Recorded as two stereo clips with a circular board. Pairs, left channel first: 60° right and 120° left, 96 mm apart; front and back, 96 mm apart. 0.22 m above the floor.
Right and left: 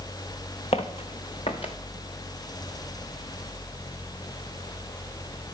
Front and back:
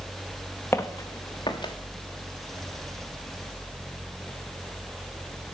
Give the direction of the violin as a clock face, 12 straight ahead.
I don't hear a violin.